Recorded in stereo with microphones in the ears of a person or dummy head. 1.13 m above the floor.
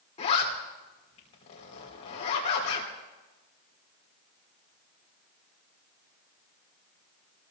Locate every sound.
0.2 s a zipper: 30° left (ahead or behind), 3 m